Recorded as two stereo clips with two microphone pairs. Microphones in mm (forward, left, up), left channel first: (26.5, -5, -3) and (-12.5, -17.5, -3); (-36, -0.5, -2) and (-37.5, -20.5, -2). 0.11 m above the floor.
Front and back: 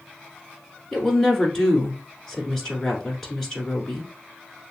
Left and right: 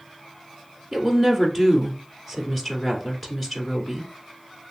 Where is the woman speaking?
75° left, 1.2 m.